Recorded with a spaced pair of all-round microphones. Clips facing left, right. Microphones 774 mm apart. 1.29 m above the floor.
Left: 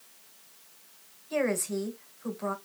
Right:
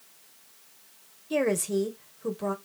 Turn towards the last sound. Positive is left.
turn(degrees=-60)  # may be behind; listen again after turning